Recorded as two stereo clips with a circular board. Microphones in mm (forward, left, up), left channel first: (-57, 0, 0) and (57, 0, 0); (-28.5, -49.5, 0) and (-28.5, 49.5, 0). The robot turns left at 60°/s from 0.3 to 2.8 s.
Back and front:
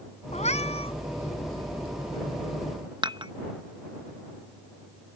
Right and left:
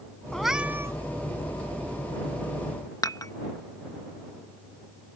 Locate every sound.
0.3 s a cat meowing: 175° right; by 0.9 s 150° left
3.0 s dishes clattering: 40° right